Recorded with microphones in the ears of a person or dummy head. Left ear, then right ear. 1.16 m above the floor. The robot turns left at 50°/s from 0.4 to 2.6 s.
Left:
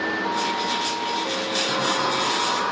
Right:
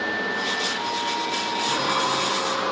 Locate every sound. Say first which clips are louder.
1.6 s a sliding door: right 1 dB; 110° left, 6.5 m; by 2.7 s 60° left, 6.5 m